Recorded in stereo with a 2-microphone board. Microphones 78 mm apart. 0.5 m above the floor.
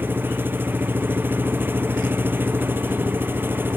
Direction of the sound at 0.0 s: 25° right (ahead or behind).